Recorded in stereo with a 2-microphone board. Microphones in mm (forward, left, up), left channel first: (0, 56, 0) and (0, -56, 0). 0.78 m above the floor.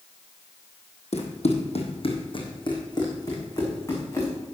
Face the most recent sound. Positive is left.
turn(degrees=25)  # may be behind; listen again after turning